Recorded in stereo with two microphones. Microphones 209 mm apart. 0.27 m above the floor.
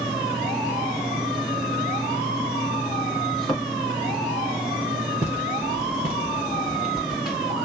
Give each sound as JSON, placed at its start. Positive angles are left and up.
{"t": 3.3, "sound": "a thud", "side_deg": 0, "distance_m": 3.0}
{"t": 5.2, "sound": "footsteps", "side_deg": -10, "distance_m": 3.0}